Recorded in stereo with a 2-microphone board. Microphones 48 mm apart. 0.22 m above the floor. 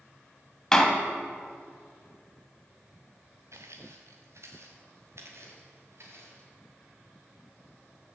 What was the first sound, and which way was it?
A door slam, 15° left (ahead or behind).